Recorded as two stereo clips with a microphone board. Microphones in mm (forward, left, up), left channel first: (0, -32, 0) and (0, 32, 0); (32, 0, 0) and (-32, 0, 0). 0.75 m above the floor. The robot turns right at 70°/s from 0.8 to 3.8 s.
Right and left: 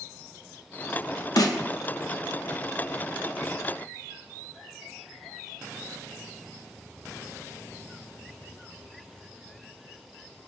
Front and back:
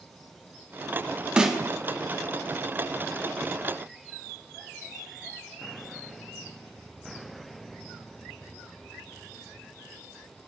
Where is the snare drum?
105° right, 0.6 m; by 1.6 s 95° right, 0.6 m.